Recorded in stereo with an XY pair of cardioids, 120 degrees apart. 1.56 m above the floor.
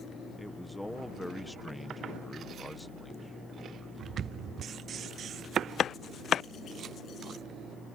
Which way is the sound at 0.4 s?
5° left.